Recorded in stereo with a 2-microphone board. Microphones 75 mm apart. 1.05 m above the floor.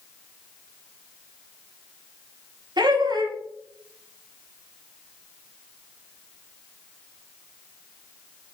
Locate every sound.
2.8 s laughter: 70° right (ahead or behind), 0.6 m